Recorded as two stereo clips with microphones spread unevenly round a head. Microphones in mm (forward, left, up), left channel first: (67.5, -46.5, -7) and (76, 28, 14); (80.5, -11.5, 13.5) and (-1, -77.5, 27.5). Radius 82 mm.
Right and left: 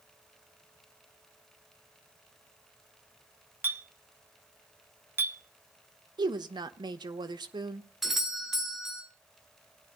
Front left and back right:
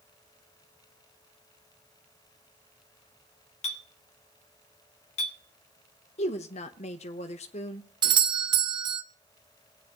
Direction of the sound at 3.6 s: 25° left.